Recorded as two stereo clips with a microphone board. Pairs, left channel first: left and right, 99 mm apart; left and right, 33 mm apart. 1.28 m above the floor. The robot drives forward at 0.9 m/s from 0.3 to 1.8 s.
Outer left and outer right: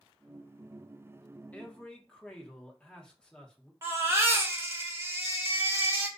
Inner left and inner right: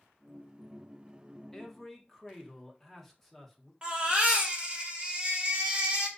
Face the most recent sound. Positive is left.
turn(degrees=-25)  # may be behind; listen again after turning